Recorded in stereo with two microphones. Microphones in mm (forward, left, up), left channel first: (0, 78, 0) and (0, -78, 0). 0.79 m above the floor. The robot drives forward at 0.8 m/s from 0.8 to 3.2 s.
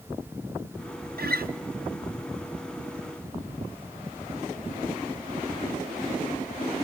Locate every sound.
1.2 s a guitar: 80° right, 0.5 m; by 1.5 s 70° right (ahead or behind), 0.5 m